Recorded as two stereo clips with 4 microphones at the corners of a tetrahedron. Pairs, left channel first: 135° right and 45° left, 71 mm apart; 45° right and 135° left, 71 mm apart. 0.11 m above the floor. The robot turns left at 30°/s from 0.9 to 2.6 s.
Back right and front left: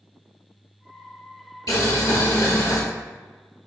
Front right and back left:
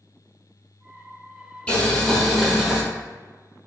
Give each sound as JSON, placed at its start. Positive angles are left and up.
{"t": 1.7, "sound": "boiling", "azimuth_deg": -115, "distance_m": 1.4}